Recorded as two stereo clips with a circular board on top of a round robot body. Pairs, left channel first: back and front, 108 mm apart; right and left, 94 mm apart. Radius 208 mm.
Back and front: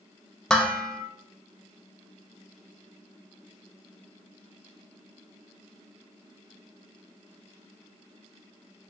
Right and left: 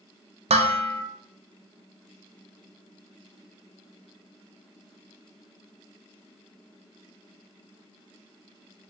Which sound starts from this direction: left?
Dishes clattering, at 0.5 s.